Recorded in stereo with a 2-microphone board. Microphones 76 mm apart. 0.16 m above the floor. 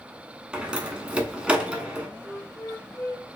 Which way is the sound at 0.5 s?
15° right (ahead or behind).